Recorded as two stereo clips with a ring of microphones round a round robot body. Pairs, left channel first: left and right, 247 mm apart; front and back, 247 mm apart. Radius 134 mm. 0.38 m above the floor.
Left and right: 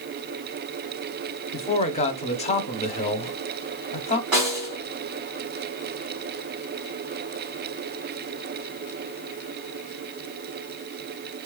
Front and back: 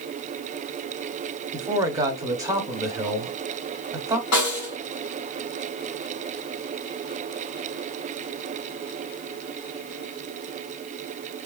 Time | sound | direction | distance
1.5 | a man speaking | 120° left | 0.8 m
4.3 | a snare drum | 10° right | 2 m